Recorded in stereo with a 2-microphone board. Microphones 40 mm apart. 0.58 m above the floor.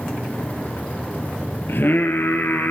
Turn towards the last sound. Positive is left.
turn(degrees=65)  # may be behind; listen again after turning